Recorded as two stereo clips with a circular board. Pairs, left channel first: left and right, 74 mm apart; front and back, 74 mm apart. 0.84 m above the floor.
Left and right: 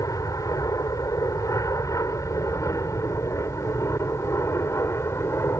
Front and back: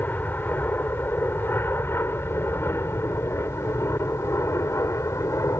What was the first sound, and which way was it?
An aircraft, 60° left.